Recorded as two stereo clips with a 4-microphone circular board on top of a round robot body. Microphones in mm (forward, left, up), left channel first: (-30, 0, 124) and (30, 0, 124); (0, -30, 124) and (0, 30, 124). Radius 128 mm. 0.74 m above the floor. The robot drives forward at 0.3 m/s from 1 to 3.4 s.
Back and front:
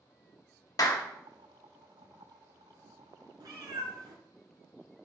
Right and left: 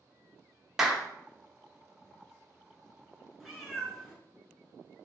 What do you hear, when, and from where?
0.8 s a clap: 175° left, 0.8 m
3.4 s a cat meowing: 5° right, 1.1 m